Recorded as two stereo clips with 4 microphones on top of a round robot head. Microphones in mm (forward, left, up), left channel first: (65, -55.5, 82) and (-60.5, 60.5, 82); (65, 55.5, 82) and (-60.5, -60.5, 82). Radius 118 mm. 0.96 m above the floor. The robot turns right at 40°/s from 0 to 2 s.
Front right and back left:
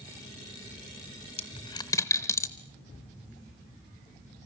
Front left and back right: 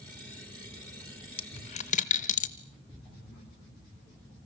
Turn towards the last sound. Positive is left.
turn(degrees=25)